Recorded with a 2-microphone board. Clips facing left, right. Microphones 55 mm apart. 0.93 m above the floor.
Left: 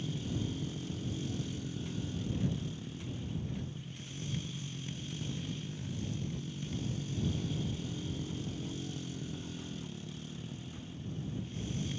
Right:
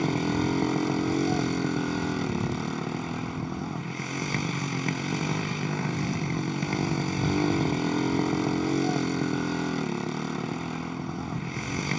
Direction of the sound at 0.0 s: 75° right (ahead or behind).